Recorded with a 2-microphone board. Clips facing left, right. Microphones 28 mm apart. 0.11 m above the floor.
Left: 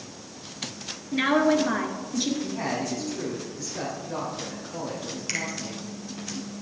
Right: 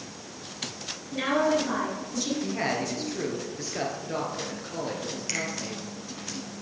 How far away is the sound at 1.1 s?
About 1.5 m.